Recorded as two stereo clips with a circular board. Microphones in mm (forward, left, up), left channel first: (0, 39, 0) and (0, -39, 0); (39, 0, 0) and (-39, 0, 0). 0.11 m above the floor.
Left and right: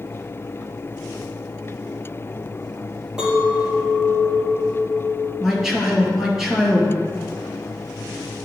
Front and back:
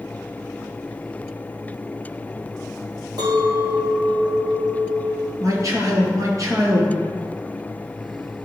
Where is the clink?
170° right, 2 m.